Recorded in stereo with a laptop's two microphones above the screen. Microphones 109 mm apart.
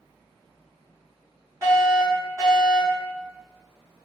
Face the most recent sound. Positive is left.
turn(degrees=-30)  # may be behind; listen again after turning